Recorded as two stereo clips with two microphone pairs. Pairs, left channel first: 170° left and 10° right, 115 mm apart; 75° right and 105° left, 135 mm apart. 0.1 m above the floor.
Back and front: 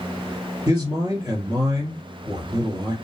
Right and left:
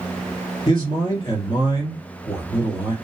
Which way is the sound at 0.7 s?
45° right.